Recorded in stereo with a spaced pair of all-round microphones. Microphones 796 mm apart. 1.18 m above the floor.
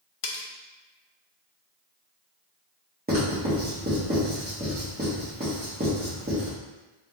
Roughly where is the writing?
Centre.